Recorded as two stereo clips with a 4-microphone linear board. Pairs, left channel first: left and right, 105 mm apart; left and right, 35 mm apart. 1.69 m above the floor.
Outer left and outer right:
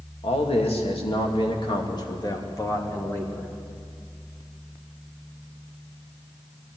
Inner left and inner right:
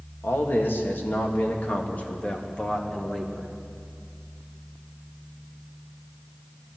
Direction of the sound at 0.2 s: 75° left (ahead or behind).